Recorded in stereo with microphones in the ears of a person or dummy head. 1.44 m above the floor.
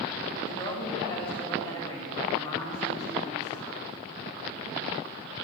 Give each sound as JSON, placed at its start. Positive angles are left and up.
{"t": 0.4, "sound": "a woman speaking", "side_deg": 25, "distance_m": 3.5}